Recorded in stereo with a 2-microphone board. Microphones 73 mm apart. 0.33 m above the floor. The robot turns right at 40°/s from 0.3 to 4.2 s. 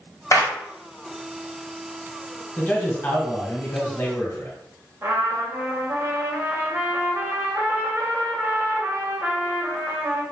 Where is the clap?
40° left (ahead or behind), 1.4 m; by 0.5 s 50° left (ahead or behind), 1.4 m.